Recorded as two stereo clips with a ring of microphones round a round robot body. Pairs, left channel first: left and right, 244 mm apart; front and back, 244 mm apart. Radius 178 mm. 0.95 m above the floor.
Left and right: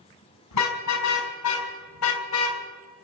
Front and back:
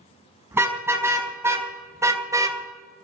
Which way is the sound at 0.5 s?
100° left.